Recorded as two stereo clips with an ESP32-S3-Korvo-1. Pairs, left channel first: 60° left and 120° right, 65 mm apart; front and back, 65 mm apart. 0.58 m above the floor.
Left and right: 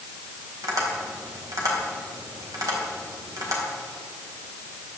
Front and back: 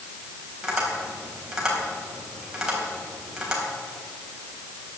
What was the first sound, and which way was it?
Tapping, 100° right.